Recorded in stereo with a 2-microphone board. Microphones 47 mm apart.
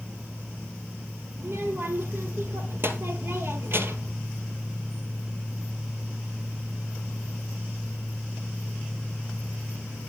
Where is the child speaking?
55° right (ahead or behind), 1.9 m.